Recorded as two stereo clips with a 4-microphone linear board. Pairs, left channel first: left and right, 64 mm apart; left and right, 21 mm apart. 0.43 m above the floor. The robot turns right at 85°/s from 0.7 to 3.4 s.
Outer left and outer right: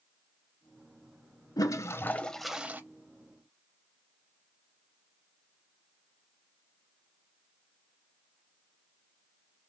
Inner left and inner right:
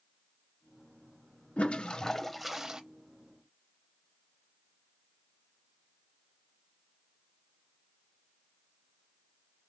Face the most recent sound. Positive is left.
turn(degrees=-100)